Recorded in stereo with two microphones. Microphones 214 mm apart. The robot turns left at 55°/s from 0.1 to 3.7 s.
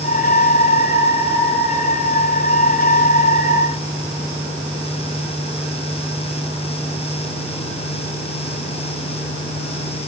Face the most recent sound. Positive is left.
No sound to turn to.